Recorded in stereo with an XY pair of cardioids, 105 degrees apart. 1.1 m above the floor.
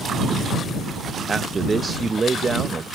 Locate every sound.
1.3 s a man speaking: 30° right